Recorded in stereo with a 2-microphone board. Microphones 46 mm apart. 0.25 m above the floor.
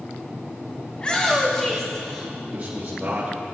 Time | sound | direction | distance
0.9 | a shout | 25° left (ahead or behind) | 1.5 m
2.5 | a man speaking | 35° right (ahead or behind) | 4.5 m